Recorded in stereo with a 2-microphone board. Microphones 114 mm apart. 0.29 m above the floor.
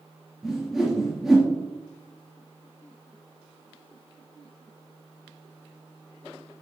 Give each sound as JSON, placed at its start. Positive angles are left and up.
{"t": 0.4, "sound": "a whoosh", "side_deg": 0, "distance_m": 2.5}